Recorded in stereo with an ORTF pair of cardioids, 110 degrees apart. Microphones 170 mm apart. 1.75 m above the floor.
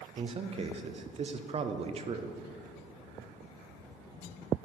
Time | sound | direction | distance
0.2 | a man speaking | 35° right | 0.7 m